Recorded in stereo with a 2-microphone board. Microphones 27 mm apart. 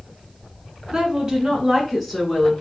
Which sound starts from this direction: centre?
A woman speaking, at 0.9 s.